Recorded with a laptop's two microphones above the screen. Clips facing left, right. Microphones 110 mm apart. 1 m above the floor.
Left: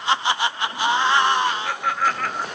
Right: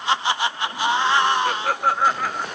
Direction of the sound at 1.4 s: 55° right (ahead or behind).